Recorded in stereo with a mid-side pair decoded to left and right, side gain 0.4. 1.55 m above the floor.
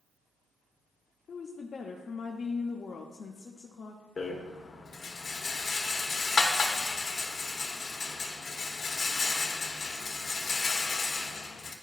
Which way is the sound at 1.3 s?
55° left.